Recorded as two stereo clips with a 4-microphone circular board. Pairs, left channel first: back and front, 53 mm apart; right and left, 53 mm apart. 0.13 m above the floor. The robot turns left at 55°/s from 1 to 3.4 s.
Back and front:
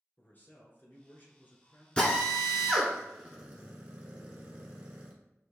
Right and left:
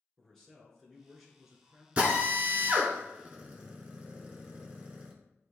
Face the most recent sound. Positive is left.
turn(degrees=50)